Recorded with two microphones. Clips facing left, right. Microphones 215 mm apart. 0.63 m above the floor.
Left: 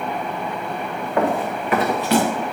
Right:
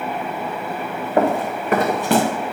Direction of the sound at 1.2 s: 35° right (ahead or behind).